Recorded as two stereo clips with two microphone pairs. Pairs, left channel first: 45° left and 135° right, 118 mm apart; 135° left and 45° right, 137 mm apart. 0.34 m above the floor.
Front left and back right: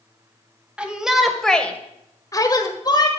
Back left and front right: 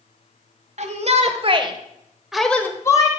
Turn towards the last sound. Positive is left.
turn(degrees=80)